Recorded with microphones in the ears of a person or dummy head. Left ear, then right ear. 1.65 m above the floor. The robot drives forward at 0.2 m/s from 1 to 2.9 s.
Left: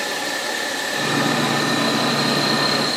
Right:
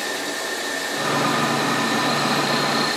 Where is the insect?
5° left (ahead or behind), 1.7 m.